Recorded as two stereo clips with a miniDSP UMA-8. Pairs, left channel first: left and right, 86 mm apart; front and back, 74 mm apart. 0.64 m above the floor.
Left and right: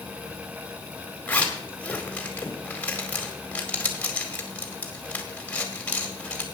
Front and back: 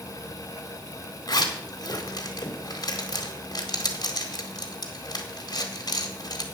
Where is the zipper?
15° left, 1.8 m.